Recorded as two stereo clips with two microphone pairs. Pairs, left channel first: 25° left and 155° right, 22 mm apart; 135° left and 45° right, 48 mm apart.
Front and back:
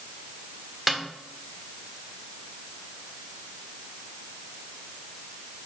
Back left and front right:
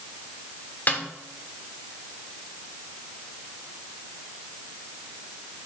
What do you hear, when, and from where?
0.9 s a snare drum: 115° left, 1.1 m